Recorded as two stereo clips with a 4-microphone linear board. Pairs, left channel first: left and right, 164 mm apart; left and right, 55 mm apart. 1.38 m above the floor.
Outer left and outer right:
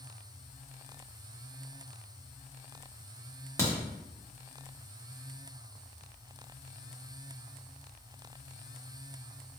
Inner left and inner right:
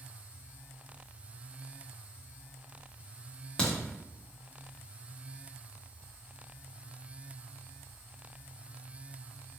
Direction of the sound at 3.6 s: 15° left (ahead or behind).